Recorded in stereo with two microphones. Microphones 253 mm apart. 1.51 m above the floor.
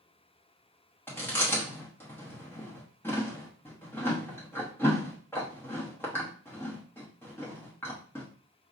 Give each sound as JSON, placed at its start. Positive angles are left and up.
{"t": 1.1, "sound": "chewing", "side_deg": 10, "distance_m": 1.0}